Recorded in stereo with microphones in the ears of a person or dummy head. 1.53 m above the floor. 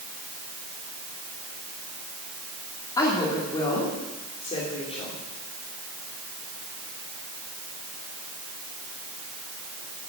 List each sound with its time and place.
3.0 s a woman speaking: 20° left (ahead or behind), 3 m; by 5.2 s 35° left (ahead or behind), 4.5 m